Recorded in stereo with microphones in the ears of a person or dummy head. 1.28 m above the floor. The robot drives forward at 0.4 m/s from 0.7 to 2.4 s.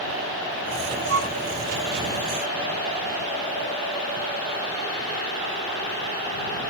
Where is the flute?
55° right (ahead or behind), 1.2 m.